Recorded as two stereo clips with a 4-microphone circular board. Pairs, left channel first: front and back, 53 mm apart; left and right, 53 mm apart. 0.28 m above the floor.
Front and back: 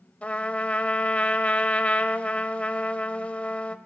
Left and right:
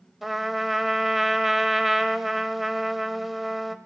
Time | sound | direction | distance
0.2 | a trumpet | 5° right | 0.5 m